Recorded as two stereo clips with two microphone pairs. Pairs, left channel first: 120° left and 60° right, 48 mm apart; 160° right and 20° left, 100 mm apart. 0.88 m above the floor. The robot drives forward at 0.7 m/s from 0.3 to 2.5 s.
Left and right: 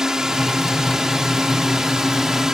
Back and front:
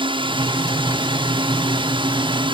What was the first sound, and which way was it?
A drone, 15° left.